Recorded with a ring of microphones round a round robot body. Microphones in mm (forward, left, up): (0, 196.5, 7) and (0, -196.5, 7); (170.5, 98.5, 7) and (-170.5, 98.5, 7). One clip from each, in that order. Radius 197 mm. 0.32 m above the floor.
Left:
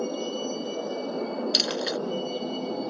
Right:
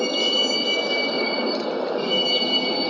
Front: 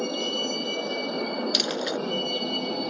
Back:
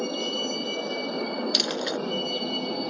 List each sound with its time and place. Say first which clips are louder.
0.0 s a vehicle: right 10 dB, front 1 dB; 85° right
1.5 s a dropped coin: even, back 1 dB; 95° left